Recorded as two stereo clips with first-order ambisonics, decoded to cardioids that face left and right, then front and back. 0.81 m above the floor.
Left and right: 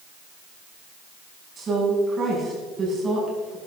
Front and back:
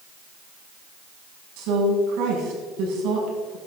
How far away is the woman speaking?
About 6 m.